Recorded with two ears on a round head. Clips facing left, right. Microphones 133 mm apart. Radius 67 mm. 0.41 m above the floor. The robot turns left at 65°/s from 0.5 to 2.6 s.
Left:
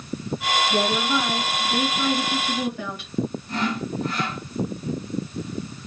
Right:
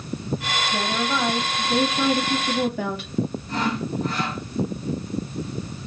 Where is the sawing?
75° right (ahead or behind), 3 m.